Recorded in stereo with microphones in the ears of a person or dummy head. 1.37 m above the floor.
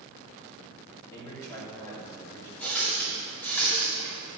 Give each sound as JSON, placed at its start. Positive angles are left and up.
{"t": 1.1, "sound": "a man speaking", "side_deg": 20, "distance_m": 3.0}
{"t": 2.6, "sound": "a running tap", "side_deg": 10, "distance_m": 2.5}